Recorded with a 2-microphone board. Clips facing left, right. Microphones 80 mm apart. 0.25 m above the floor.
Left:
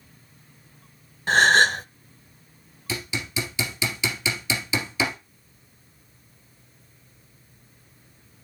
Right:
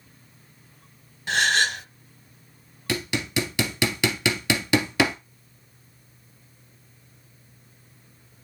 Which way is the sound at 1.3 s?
40° left (ahead or behind).